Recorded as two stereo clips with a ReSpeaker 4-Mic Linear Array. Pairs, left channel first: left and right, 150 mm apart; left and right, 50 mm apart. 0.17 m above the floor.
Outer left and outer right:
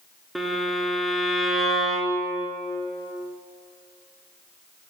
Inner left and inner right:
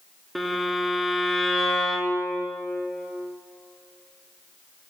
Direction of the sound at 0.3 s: Centre (ahead or behind).